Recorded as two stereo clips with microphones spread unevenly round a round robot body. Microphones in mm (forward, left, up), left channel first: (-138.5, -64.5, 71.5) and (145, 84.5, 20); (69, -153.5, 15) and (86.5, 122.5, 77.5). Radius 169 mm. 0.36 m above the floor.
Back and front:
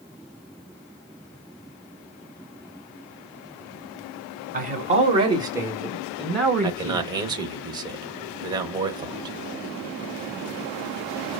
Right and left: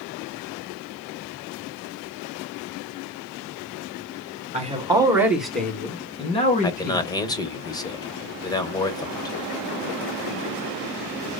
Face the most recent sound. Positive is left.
turn(degrees=-35)